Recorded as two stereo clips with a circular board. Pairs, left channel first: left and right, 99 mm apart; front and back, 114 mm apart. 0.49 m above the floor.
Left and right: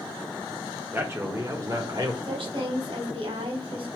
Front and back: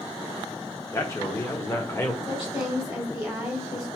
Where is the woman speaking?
95° right, 2.5 m.